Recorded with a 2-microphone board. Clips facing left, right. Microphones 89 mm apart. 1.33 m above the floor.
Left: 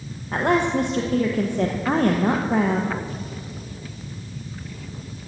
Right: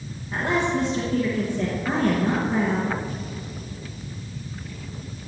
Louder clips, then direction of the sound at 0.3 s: Left 3 dB; 60° left (ahead or behind).